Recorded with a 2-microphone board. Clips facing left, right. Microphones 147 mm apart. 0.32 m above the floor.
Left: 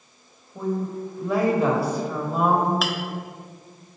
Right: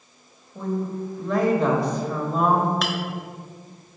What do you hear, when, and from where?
0.6 s a woman speaking: 5° left (ahead or behind), 1.1 m
2.8 s a clink: centre (ahead or behind), 0.7 m